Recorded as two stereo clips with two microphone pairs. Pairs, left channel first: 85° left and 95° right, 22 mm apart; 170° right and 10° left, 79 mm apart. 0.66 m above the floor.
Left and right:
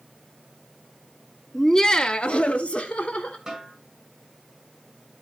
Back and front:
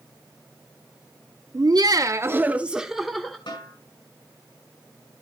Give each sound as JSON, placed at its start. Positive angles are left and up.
{"t": 1.5, "sound": "laughter", "azimuth_deg": 10, "distance_m": 1.1}
{"t": 3.5, "sound": "a snare drum", "azimuth_deg": -170, "distance_m": 6.0}